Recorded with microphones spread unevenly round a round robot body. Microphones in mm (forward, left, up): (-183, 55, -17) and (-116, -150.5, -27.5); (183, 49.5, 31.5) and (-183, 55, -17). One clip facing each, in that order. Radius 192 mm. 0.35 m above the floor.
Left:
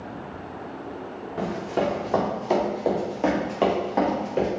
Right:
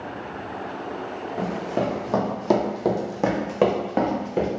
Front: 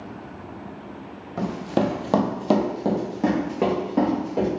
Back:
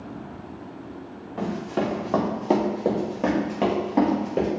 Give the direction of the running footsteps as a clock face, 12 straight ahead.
11 o'clock.